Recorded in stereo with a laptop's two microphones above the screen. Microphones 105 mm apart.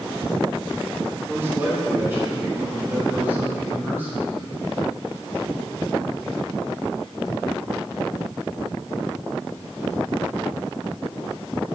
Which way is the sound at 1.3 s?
25° right (ahead or behind).